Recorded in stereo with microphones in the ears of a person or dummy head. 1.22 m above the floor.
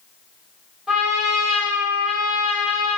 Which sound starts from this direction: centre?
A trumpet, at 0.9 s.